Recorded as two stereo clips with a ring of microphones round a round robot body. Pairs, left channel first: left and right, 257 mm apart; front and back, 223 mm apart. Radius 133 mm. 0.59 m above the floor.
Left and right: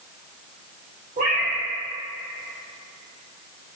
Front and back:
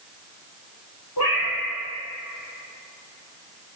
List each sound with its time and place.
1.2 s a cat meowing: 25° right, 1.7 m